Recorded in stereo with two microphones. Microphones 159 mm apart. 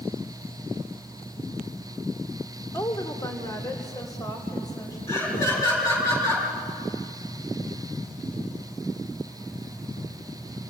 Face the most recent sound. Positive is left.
turn(degrees=20)  # may be behind; listen again after turning